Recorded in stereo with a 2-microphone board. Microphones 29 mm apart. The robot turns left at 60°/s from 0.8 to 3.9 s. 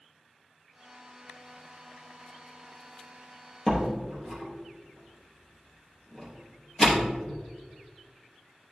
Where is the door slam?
25° left (ahead or behind), 4.5 m; by 7.1 s 10° left (ahead or behind), 4.5 m.